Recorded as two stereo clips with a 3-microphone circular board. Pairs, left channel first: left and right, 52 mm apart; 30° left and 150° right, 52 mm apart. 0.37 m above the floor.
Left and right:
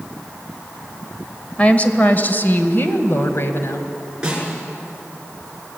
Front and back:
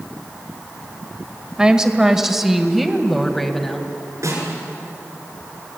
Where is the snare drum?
165° right, 6.5 m.